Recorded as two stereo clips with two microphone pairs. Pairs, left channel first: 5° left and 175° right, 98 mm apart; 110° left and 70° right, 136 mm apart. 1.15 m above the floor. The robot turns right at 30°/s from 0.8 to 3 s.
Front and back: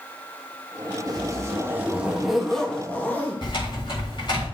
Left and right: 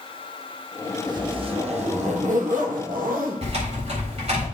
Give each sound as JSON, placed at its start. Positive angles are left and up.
{"t": 1.1, "sound": "a zipper", "azimuth_deg": -130, "distance_m": 1.1}
{"t": 3.4, "sound": "typing on a keyboard", "azimuth_deg": -30, "distance_m": 4.0}